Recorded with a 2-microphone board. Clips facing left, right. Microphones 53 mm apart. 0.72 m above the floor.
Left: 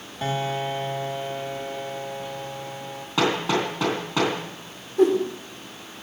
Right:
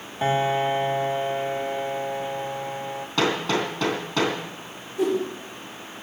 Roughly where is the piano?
Right.